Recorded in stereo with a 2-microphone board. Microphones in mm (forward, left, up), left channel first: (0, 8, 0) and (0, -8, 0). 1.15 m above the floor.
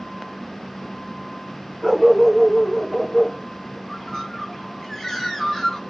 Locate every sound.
1.8 s a dog barking: 30° right (ahead or behind), 1.6 m; by 3.8 s 40° left (ahead or behind), 1.8 m
3.9 s a bird: 25° left (ahead or behind), 2.5 m